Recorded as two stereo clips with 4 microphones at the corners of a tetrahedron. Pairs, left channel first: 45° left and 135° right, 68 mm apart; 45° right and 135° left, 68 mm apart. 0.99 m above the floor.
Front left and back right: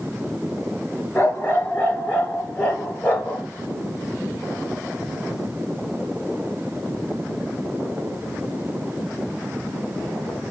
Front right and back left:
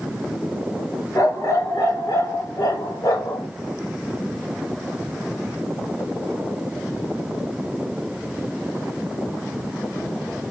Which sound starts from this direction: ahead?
A dog barking, at 1.1 s.